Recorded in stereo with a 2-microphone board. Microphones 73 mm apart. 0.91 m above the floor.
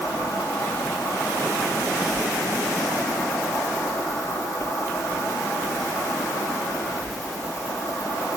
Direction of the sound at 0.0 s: 50° left (ahead or behind).